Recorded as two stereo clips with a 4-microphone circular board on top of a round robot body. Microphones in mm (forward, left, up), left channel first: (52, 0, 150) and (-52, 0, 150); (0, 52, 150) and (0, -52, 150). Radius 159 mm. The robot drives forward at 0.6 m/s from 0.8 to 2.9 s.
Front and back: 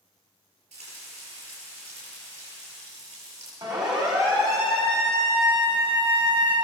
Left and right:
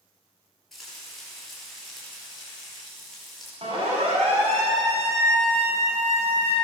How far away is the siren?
About 7 m.